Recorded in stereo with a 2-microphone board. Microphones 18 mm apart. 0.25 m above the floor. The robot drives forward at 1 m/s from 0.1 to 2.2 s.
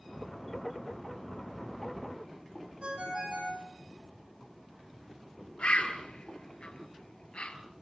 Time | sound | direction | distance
2.8 | a ringtone | 65° right (ahead or behind) | 7.5 m
5.6 | a bird | 80° left | 2 m